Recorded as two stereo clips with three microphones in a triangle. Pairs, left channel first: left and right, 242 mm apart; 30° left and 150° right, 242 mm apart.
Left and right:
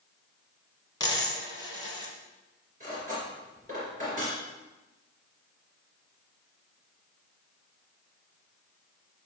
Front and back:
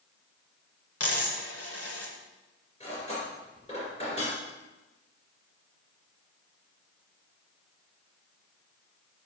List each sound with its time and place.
1.0 s a dropped coin: 15° left, 1.7 m
2.8 s cutlery clinking: 35° right, 3 m